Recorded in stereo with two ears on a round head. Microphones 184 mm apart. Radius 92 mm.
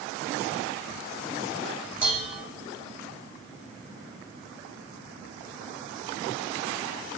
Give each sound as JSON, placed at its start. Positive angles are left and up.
{"t": 2.0, "sound": "dishes clattering", "side_deg": -10, "distance_m": 3.0}